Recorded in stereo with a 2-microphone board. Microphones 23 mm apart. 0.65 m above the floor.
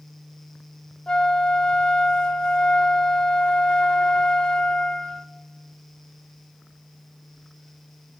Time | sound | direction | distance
1.1 | a flute | 50° left (ahead or behind) | 0.6 m